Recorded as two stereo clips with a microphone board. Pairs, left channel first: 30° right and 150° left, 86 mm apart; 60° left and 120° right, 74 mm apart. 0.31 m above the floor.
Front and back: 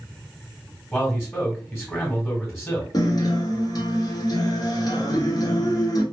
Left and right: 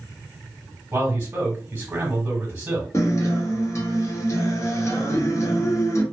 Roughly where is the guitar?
Ahead.